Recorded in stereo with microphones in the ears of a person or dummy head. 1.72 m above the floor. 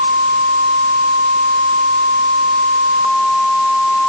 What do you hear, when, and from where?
Only background noise.